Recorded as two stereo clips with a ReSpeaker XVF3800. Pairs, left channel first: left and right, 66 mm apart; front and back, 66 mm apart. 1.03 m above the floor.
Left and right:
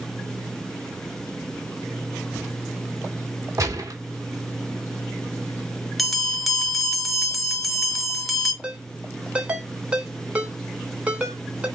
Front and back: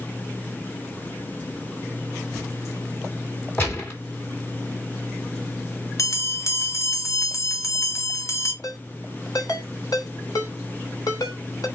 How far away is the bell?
About 1.1 m.